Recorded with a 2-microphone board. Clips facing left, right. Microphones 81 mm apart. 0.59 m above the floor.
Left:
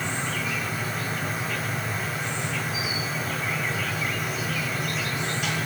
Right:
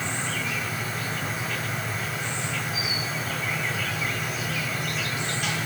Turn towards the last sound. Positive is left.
turn(degrees=0)  # may be behind; listen again after turning